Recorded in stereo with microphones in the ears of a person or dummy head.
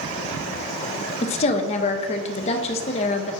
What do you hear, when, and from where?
1.2 s a woman speaking: 30° left (ahead or behind), 0.6 m